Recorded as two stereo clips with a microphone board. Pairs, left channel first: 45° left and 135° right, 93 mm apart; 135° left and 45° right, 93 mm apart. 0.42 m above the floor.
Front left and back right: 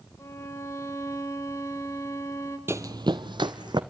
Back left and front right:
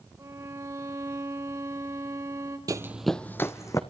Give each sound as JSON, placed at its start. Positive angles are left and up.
{"t": 0.2, "sound": "a violin", "azimuth_deg": 0, "distance_m": 1.2}
{"t": 2.7, "sound": "running footsteps", "azimuth_deg": -80, "distance_m": 0.6}